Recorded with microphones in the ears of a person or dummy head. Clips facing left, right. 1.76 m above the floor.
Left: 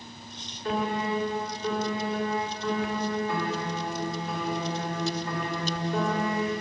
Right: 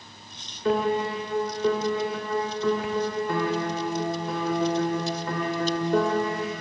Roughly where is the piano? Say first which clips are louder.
Right 5 dB; right.